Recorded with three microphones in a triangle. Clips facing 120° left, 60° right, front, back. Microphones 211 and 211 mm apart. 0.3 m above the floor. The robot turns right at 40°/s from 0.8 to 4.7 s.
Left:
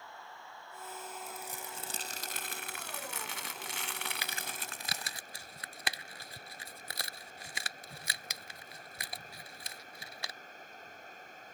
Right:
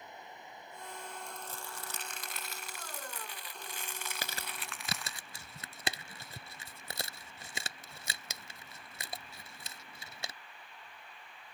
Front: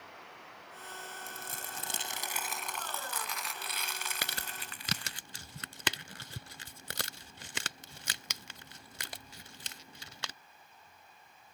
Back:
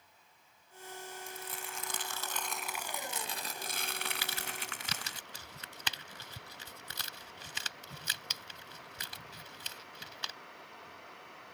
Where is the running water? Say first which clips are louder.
Right 1 dB, front 15 dB; 10° left; by 11.5 s 165° left.